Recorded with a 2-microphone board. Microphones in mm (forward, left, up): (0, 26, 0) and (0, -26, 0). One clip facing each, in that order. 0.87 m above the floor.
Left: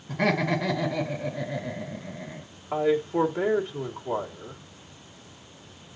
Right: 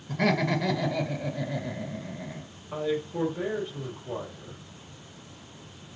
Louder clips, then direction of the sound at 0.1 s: Left 1 dB; 15° left (ahead or behind).